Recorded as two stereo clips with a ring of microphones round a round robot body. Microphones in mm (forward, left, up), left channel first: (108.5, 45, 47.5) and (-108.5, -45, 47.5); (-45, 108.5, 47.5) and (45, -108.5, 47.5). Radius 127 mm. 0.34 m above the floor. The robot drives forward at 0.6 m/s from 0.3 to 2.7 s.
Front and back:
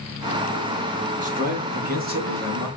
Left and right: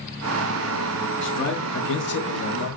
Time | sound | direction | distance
1.2 | a man speaking | 145° left | 3.5 m